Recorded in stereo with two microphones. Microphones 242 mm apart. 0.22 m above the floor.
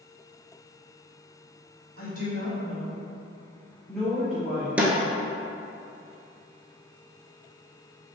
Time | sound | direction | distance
2.0 | a woman speaking | 40° left (ahead or behind) | 1.7 m
4.8 | a snare drum | 5° right (ahead or behind) | 0.9 m